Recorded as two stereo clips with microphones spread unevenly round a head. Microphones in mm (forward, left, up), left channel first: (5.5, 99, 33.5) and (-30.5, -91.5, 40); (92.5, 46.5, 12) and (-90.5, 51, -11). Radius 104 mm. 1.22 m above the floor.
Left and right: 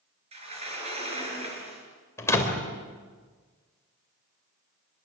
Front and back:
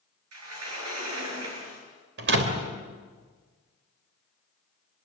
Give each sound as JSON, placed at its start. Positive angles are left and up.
{"t": 0.3, "sound": "a sliding door", "azimuth_deg": -160, "distance_m": 7.0}
{"t": 2.2, "sound": "a door slam", "azimuth_deg": 155, "distance_m": 3.5}